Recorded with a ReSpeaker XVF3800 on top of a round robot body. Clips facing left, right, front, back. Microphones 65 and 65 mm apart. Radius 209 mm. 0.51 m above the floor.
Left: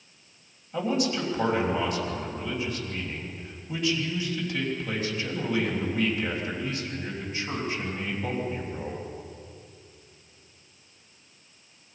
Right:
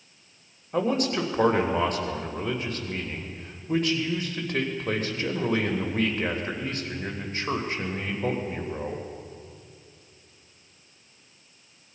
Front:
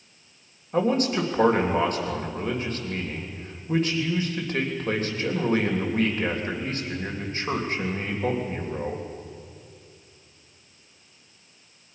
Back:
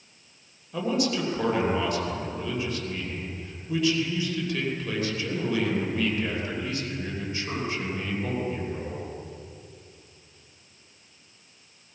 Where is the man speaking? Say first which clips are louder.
Right 2 dB, front 4 dB; 50° right, 3.5 m.